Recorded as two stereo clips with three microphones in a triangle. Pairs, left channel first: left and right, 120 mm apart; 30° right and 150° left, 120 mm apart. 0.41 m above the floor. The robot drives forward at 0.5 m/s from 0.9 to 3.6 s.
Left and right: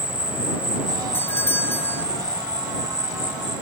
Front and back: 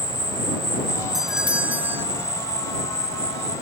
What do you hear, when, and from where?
0.0 s an insect: 125° left; by 3.6 s 150° left
1.1 s a doorbell: 65° left; by 2.0 s 125° left